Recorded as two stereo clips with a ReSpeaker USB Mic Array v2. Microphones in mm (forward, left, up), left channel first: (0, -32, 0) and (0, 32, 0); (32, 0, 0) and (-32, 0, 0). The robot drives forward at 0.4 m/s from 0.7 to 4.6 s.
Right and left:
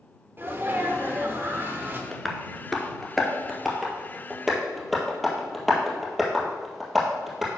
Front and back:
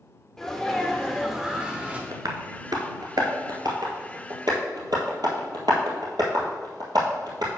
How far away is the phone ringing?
No phone ringing in this recording.